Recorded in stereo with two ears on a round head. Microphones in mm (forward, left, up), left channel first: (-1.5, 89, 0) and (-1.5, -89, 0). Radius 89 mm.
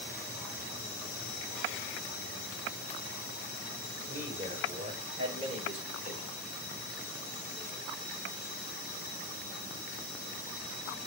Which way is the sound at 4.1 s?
25° right (ahead or behind).